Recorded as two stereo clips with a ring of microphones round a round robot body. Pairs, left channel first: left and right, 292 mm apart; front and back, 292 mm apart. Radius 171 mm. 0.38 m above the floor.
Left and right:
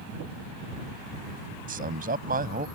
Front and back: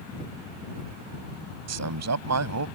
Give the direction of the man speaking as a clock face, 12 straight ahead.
5 o'clock.